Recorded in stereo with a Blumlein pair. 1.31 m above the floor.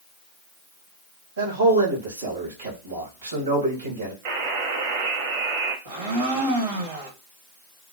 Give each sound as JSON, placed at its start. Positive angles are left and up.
{"t": 1.4, "sound": "a man speaking", "azimuth_deg": -70, "distance_m": 2.0}
{"t": 4.2, "sound": "a buzzer", "azimuth_deg": -50, "distance_m": 1.1}
{"t": 5.8, "sound": "a blender", "azimuth_deg": -55, "distance_m": 1.2}